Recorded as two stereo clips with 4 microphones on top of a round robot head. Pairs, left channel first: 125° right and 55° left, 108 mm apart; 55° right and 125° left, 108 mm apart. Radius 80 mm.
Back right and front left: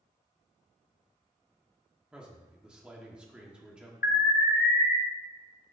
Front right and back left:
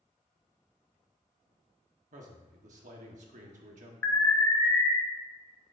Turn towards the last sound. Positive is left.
turn(degrees=-125)